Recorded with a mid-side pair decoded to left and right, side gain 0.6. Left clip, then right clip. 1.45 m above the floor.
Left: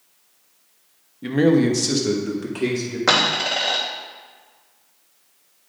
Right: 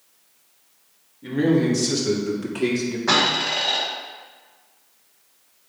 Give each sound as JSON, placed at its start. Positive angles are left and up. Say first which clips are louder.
{"t": 1.2, "sound": "a man speaking", "louder": "left 3 dB", "azimuth_deg": 55, "distance_m": 1.4}
{"t": 3.1, "sound": "a dropped coin", "louder": "left 1 dB", "azimuth_deg": 55, "distance_m": 3.0}